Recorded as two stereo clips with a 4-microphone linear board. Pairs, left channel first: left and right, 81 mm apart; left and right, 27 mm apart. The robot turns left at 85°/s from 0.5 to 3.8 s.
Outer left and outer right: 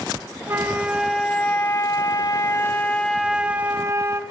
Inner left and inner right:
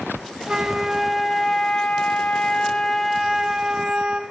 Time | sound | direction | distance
0.5 | a flute | 130° right | 1.7 m